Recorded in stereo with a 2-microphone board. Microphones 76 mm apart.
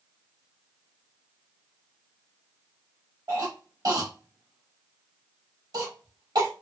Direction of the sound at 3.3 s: 55° right (ahead or behind).